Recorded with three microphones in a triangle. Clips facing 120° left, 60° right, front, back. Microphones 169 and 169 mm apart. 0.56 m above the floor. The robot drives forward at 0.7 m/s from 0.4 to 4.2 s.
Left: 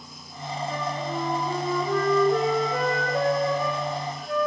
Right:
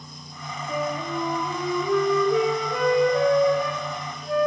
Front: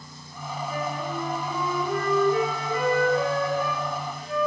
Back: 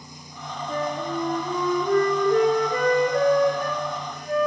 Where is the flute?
135° right, 5.5 m; by 4.5 s 150° right, 7.5 m.